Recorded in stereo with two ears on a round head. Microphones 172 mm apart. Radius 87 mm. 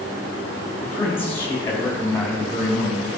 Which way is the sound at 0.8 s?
15° left (ahead or behind).